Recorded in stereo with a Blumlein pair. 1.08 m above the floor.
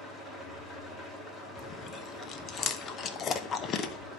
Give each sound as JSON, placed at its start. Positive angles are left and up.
{"t": 0.0, "sound": "an engine running", "azimuth_deg": 20, "distance_m": 2.5}
{"t": 1.6, "sound": "chewing", "azimuth_deg": 30, "distance_m": 0.8}